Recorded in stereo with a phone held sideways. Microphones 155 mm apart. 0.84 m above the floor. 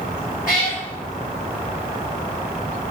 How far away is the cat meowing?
About 1.4 m.